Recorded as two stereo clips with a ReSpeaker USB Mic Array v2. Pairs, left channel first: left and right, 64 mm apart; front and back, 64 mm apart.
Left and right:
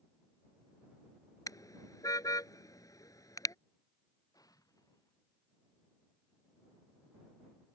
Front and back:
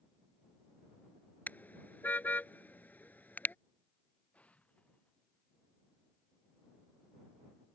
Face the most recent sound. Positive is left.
turn(degrees=70)